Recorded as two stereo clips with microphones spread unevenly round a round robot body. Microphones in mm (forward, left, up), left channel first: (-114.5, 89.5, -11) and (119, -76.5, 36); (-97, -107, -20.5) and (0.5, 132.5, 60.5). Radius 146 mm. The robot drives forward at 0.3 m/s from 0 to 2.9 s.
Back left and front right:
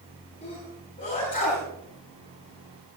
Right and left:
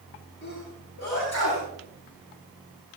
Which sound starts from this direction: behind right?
A sneeze, at 0.4 s.